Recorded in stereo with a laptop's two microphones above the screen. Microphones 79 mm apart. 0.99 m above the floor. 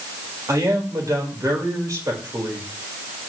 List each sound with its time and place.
0.5 s a man speaking: 45° right (ahead or behind), 4 m